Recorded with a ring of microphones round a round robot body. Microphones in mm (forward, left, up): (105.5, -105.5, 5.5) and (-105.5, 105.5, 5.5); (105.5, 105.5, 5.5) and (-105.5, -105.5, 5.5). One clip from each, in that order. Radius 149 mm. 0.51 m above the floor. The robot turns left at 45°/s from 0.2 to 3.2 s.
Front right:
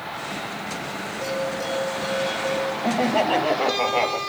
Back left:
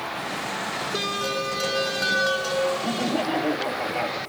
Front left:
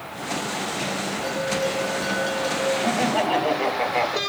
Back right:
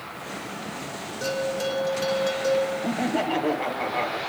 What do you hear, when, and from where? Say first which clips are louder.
1.2 s a bell: even, even; 175° right, 6 m; by 2.7 s 115° left, 6 m
2.8 s laughter: front right 4 dB, front left 4 dB; 10° right, 3.5 m; by 4.2 s 25° right, 3.5 m